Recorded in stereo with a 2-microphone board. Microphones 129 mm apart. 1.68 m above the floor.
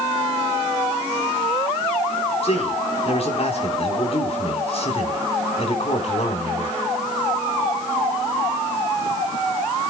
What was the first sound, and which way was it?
A man speaking, 50° left (ahead or behind).